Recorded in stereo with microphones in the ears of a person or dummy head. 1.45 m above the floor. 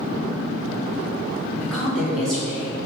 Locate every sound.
1.6 s a woman speaking: 5° left (ahead or behind), 0.9 m